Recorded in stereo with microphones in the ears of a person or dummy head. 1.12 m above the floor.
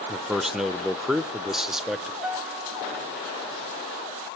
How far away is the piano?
About 4 m.